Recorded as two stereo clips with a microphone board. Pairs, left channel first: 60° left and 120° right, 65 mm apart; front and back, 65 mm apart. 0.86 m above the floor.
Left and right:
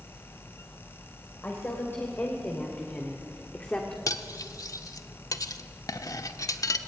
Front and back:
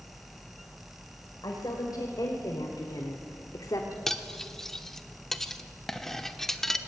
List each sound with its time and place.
1.4 s a woman speaking: 5° left, 3.5 m; by 4.0 s 10° right, 1.9 m
4.1 s cutlery clinking: 85° left, 1.1 m